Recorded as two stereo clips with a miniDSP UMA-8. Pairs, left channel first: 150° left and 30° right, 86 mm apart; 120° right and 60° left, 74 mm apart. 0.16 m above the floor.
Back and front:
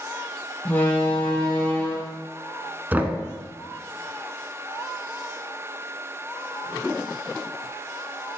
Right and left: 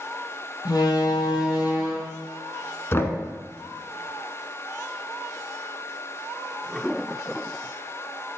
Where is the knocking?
90° right, 1.0 m.